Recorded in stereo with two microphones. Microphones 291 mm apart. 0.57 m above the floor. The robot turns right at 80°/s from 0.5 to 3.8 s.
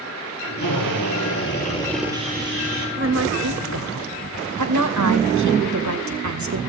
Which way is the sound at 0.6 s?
70° left.